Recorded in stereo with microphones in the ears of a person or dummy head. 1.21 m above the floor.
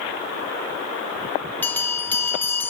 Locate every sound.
1.6 s a bell: 10° left (ahead or behind), 0.7 m